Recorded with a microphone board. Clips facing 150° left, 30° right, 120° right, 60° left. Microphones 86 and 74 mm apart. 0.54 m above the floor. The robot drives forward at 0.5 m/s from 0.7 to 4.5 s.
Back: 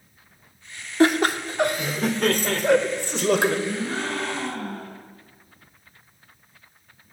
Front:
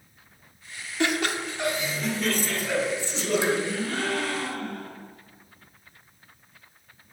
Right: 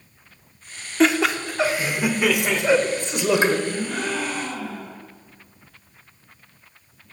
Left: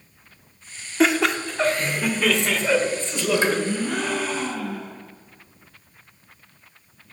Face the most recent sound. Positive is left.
turn(degrees=95)